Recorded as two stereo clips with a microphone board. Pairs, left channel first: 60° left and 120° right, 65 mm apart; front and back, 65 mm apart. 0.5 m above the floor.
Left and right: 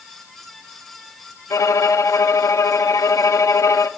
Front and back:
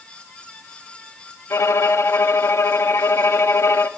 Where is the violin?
40° left, 0.5 m.